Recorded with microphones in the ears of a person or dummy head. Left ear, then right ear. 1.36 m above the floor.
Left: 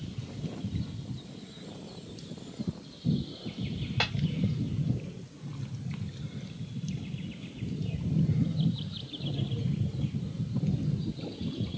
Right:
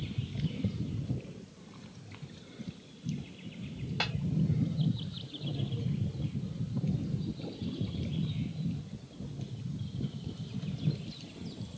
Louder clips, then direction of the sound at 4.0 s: Left 4 dB; 5° left (ahead or behind).